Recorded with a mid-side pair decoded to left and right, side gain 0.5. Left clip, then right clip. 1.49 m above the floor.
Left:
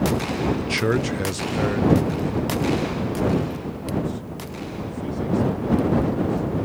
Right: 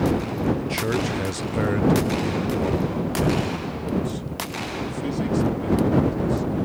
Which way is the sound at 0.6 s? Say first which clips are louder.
Left 2 dB; 50° left.